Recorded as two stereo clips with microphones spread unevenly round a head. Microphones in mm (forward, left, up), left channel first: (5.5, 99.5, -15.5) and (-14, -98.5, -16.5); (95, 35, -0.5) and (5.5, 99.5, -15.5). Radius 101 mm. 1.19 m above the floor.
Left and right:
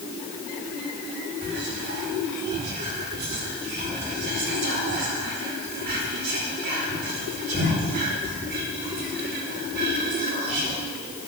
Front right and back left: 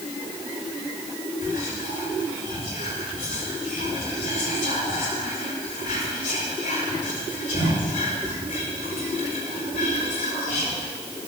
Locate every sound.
1.4 s whispering: 50° right, 4.5 m